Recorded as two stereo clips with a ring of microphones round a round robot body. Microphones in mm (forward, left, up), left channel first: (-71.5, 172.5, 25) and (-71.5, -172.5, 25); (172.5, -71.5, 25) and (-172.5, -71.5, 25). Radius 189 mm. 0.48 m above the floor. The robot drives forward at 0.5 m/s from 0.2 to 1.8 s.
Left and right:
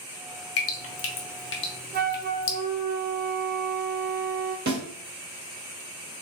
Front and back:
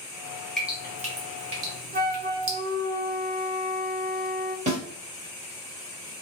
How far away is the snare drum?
About 1.4 m.